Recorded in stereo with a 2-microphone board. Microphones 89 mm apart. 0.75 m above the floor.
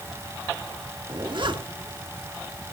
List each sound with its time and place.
1.1 s a zipper: 65° right (ahead or behind), 1.8 m